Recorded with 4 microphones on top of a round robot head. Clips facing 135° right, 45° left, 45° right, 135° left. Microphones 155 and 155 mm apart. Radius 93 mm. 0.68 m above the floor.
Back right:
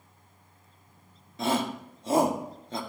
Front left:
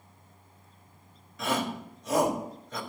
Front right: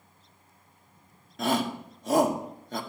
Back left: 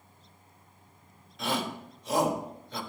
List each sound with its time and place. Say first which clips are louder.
1.4 s a shout: back right 2 dB, front right 5 dB; 80° right, 1.9 m